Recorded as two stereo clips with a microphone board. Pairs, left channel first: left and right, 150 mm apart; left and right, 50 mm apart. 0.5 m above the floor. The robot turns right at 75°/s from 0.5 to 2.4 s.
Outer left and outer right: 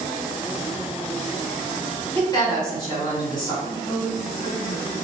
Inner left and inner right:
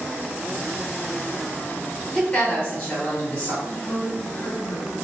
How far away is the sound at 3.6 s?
About 0.8 m.